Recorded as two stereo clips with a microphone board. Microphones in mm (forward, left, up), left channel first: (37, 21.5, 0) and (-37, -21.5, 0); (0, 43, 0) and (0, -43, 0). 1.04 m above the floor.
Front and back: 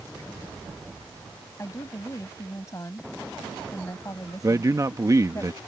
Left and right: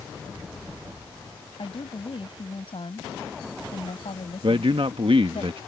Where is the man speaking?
100° right.